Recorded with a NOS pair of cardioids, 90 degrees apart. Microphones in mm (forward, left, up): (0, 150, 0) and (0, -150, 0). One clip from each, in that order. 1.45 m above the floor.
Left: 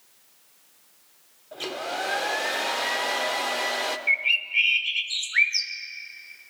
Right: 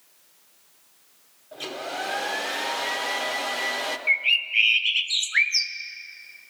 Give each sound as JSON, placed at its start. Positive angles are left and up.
{"t": 1.5, "sound": "a hair dryer", "azimuth_deg": 10, "distance_m": 0.8}
{"t": 4.1, "sound": "a bird", "azimuth_deg": -25, "distance_m": 0.9}